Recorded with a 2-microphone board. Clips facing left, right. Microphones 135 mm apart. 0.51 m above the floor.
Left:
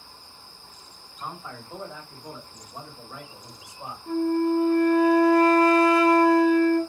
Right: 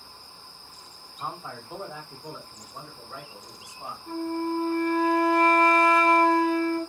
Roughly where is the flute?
Left.